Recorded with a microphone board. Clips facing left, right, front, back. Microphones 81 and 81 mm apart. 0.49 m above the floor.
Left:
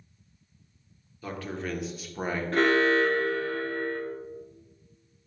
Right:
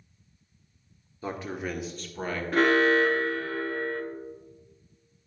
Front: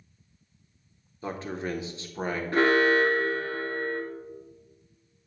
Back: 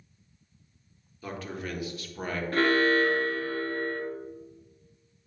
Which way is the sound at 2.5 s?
15° right.